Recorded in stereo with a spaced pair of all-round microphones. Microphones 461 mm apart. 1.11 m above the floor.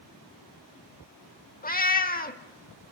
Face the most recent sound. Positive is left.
turn(degrees=20)  # may be behind; listen again after turning